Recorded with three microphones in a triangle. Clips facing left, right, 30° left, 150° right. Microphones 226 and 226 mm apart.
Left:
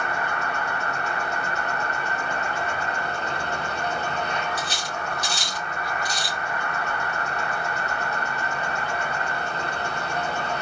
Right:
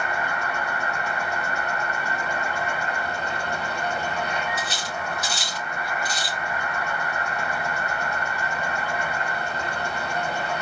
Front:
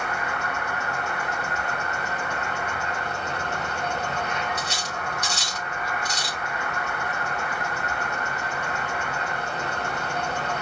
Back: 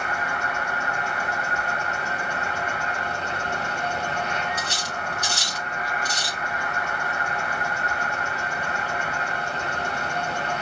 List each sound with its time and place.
0.0 s an insect: 165° right, 2.5 m
4.6 s cutlery clinking: 175° right, 4 m